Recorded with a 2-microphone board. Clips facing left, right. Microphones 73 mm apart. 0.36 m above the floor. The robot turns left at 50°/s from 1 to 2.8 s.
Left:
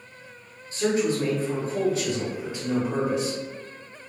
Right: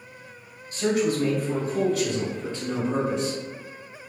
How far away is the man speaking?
About 1.2 m.